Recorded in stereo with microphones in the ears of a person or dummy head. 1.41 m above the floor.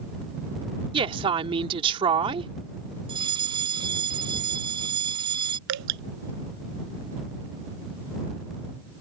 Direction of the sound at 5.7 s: 70° right (ahead or behind).